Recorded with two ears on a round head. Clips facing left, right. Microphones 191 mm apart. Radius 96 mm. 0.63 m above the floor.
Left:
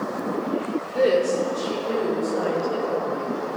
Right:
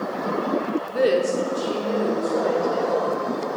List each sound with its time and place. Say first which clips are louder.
0.9 s a woman speaking: left 1 dB; 15° right (ahead or behind), 1.1 m; by 3.3 s centre (ahead or behind), 3.5 m